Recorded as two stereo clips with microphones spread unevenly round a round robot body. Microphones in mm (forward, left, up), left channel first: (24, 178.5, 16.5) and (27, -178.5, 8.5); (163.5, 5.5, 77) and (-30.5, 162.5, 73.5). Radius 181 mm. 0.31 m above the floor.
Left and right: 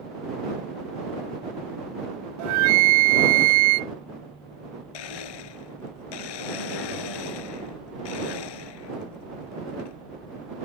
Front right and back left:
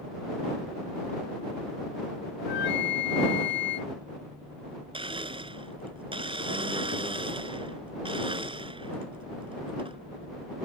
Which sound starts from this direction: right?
A flute, at 2.4 s.